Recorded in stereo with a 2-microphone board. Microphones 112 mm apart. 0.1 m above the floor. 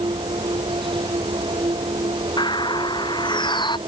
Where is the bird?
45° left (ahead or behind).